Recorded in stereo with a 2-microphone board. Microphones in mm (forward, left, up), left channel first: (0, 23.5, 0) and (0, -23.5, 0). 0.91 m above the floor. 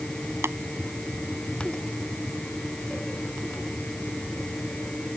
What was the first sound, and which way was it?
Tapping, 65° right (ahead or behind).